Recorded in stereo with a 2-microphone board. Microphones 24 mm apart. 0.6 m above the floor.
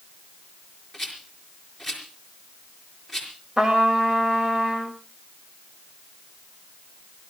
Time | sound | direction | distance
0.9 | a rattle | 5° left (ahead or behind) | 5 m
3.6 | a trumpet | 30° right (ahead or behind) | 2.5 m